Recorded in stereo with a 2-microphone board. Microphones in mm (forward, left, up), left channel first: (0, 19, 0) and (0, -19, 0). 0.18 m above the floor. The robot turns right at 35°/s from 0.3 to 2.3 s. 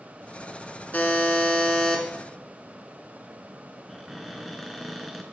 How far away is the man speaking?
No man speaking in this recording.